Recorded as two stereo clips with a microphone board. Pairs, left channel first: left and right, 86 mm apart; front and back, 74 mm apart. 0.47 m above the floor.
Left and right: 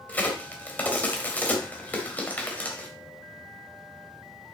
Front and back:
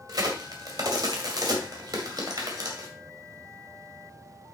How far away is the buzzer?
I don't hear a buzzer.